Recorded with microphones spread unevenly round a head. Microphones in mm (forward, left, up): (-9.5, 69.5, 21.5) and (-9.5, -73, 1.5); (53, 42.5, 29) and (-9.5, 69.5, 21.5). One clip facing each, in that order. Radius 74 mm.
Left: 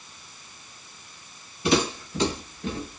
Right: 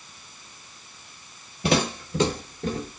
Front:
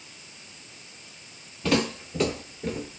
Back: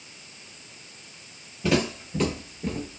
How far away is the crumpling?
I don't hear crumpling.